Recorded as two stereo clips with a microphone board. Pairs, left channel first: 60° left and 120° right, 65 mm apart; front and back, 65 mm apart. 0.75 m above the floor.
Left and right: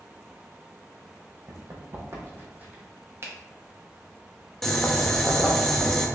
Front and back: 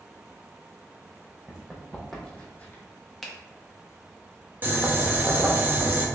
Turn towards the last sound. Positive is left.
turn(degrees=145)